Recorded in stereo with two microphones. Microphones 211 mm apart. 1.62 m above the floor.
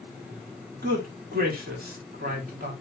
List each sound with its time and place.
0.8 s a man speaking: 45° right (ahead or behind), 3.5 m